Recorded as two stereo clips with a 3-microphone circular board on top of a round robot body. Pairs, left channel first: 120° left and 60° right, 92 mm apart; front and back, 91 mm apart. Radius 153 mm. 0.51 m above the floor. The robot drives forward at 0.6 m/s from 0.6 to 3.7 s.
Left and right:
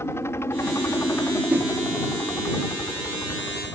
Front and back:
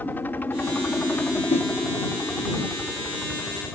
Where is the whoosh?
10° left.